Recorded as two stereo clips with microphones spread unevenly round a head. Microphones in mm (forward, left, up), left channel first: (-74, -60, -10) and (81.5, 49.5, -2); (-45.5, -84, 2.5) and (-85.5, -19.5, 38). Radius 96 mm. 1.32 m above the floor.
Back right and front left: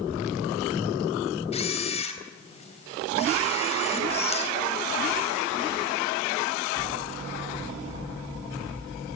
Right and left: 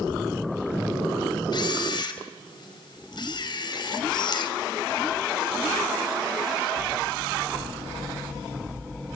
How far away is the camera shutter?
About 4 m.